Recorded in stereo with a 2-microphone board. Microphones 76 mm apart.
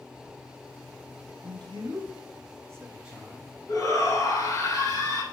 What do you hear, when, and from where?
1.4 s a man speaking: 85° right, 1.5 m; by 3.5 s 10° left (ahead or behind), 1.0 m
3.7 s a shout: 50° left (ahead or behind), 1.9 m